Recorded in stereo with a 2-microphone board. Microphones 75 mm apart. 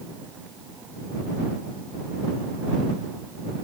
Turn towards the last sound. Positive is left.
No sound to turn to.